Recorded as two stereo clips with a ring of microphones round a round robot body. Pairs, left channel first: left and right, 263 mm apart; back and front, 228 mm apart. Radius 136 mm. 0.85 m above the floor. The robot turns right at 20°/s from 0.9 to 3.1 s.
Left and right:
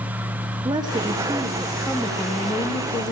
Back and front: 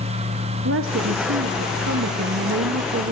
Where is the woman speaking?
20° right, 1.5 m; by 3.1 s 25° left, 1.5 m.